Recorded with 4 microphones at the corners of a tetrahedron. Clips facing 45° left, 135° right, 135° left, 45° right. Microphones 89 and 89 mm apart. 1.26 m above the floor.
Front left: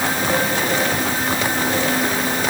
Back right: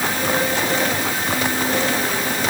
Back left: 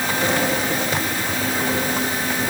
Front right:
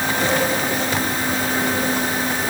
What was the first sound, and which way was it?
Only background noise.